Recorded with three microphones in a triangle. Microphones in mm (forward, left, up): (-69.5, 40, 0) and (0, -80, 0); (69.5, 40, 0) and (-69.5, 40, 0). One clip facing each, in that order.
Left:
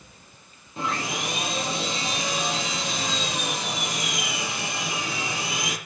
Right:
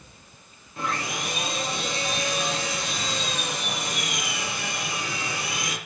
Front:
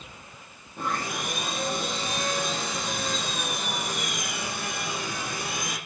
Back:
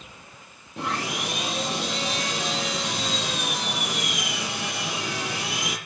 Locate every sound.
0.8 s sawing: 170° right, 7 m